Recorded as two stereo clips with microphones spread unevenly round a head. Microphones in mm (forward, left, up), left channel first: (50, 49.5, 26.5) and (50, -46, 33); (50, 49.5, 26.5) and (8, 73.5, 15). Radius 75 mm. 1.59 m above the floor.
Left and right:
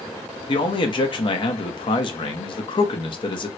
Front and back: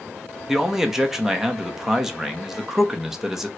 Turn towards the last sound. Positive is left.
turn(degrees=60)